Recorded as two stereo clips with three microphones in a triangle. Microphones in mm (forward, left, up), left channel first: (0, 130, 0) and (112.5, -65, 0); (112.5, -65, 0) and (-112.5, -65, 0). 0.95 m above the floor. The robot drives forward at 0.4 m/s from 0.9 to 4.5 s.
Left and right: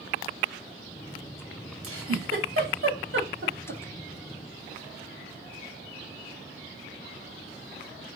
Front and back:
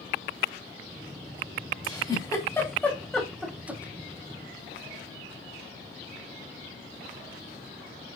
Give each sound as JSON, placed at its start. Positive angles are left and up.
{"t": 1.8, "sound": "a giggle", "azimuth_deg": -70, "distance_m": 1.6}